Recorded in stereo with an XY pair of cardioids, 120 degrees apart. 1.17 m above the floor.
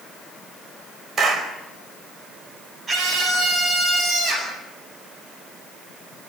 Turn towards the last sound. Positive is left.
turn(degrees=-35)